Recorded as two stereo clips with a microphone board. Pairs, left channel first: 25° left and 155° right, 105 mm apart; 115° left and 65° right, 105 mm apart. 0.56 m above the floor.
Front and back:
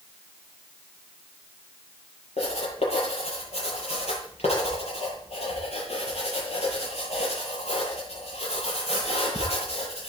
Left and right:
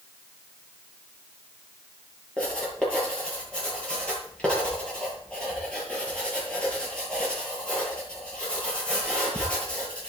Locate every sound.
2.4 s writing: 35° left, 8.5 m